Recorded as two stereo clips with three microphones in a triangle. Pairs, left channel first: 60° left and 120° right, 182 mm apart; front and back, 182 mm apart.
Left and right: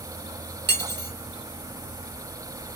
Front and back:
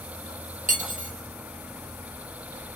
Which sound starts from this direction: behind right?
Cutlery clinking, at 0.7 s.